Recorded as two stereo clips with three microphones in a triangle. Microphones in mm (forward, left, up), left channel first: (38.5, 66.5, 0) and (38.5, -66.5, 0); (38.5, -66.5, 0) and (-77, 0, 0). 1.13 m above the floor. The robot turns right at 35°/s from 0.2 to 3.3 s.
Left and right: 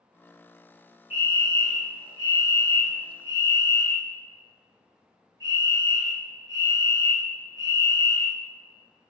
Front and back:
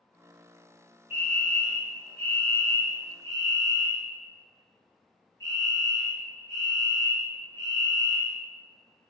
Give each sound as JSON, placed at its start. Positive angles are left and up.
{"t": 1.1, "sound": "a fire alarm", "azimuth_deg": -150, "distance_m": 1.5}